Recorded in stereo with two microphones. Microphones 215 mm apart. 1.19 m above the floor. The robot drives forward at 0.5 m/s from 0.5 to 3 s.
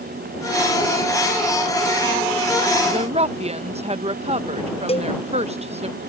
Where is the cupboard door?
I don't hear a cupboard door.